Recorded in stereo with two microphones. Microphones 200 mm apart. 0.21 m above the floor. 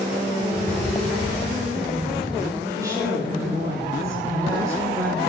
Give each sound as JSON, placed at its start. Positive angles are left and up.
{"t": 0.5, "sound": "footsteps", "side_deg": 15, "distance_m": 0.7}
{"t": 2.7, "sound": "a woman speaking", "side_deg": -15, "distance_m": 8.5}